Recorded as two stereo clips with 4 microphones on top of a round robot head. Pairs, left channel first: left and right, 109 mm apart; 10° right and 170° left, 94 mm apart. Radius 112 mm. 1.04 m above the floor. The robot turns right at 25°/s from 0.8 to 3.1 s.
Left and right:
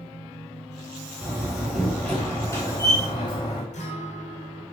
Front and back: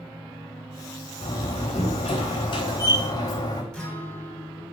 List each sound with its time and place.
1.2 s a door slam: 15° right, 2.5 m; by 3.6 s 35° left, 2.5 m
3.7 s a guitar: 70° left, 3.5 m